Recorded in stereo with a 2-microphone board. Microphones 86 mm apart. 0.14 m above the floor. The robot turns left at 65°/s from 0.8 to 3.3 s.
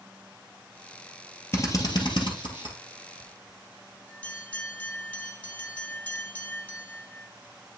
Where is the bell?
15° left (ahead or behind), 0.9 m; by 7.3 s 20° left (ahead or behind), 0.9 m.